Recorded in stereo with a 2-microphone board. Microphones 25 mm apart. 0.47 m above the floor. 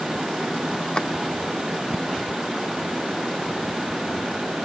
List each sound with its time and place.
0.9 s a drawer: 35° left (ahead or behind)